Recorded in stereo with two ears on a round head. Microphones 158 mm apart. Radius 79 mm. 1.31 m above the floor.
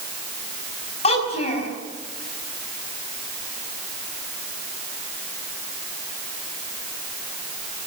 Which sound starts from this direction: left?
A child speaking, at 1.0 s.